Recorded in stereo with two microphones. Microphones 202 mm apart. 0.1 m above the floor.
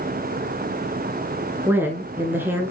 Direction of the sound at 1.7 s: 10° right (ahead or behind).